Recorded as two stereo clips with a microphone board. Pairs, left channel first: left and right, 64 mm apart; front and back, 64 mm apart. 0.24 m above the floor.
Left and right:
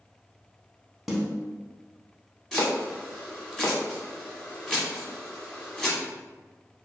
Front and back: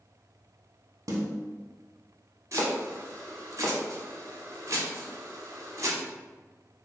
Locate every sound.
1.1 s a snare drum: 175° right, 0.7 m
2.5 s chopping: 175° left, 0.9 m